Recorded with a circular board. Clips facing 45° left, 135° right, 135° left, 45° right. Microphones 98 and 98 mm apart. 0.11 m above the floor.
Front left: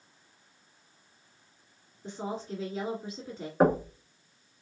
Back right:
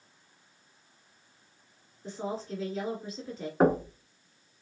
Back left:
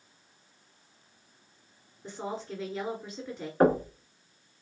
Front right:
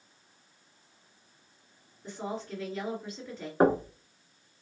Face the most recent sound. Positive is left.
turn(degrees=-50)